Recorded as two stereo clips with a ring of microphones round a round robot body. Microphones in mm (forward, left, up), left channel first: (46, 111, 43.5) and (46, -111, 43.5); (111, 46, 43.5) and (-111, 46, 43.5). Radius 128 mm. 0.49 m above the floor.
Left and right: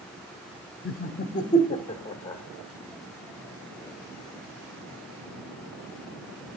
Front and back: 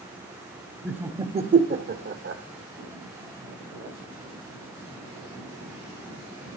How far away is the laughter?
About 0.9 m.